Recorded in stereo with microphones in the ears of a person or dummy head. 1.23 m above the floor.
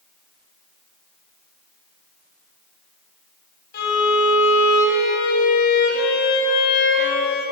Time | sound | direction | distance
3.7 | a violin | 60° left (ahead or behind) | 3.5 m